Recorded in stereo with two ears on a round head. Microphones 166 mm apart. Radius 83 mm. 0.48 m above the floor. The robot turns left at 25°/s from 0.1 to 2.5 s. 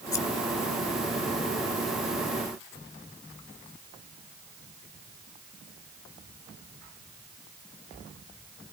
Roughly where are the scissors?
Centre.